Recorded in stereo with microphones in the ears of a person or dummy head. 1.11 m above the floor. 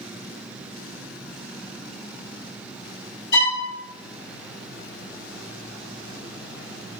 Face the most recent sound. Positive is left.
turn(degrees=70)  # may be behind; listen again after turning